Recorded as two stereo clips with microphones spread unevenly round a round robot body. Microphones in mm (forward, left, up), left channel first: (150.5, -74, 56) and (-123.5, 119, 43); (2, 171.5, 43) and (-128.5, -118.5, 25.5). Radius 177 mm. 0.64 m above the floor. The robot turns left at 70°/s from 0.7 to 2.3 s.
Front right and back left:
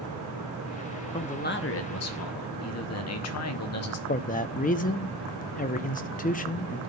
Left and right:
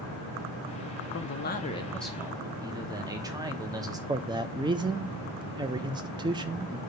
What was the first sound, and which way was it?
A man speaking, 40° left.